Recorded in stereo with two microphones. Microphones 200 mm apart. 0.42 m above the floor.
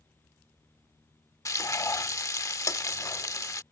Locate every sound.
1.4 s frying: 15° left (ahead or behind)